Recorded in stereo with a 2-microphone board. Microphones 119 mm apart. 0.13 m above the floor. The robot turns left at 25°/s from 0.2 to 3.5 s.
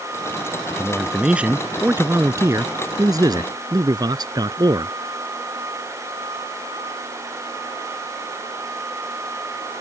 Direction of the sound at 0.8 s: Straight ahead.